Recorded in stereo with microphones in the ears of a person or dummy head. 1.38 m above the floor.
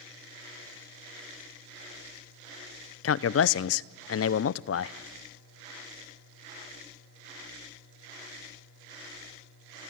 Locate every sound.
3.0 s a man speaking: 75° left (ahead or behind), 0.6 m